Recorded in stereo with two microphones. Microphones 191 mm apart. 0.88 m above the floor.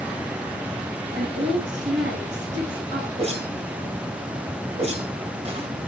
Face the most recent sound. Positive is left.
turn(degrees=-30)  # may be behind; listen again after turning